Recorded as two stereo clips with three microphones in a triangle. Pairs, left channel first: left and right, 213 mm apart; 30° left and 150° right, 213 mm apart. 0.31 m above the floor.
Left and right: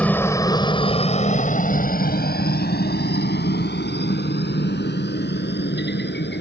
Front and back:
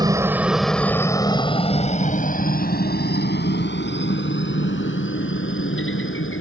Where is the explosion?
No explosion in this recording.